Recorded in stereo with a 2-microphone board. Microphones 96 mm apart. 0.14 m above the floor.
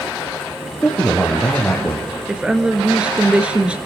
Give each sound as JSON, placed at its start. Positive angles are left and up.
{"t": 0.8, "sound": "a man speaking", "side_deg": 5, "distance_m": 4.0}
{"t": 2.3, "sound": "a woman speaking", "side_deg": -10, "distance_m": 1.9}